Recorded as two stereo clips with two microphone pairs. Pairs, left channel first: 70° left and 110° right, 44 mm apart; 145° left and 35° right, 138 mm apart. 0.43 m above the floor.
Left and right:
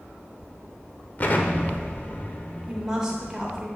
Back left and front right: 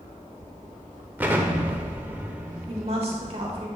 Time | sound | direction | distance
1.2 | an explosion | 40° left | 0.7 m
2.7 | a woman speaking | 40° right | 1.3 m